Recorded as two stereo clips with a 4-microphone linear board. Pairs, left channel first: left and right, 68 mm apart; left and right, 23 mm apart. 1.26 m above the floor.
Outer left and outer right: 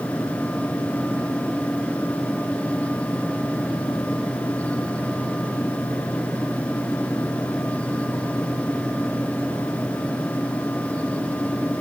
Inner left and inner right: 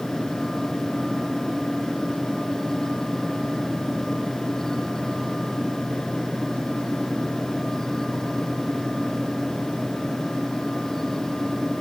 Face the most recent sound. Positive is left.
No sound to turn to.